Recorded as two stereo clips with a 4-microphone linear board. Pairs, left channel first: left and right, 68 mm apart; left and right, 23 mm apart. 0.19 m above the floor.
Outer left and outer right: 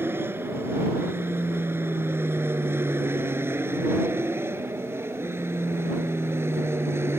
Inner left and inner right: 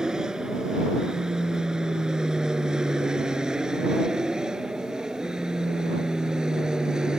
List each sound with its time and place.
0.0 s an aircraft: 35° right (ahead or behind)